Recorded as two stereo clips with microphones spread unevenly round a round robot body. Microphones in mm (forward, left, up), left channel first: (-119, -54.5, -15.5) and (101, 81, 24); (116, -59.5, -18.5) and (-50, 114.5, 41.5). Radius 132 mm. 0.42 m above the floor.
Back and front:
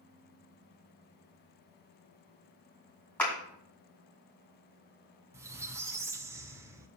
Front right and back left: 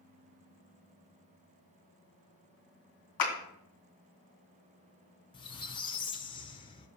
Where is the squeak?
55° right, 0.8 m.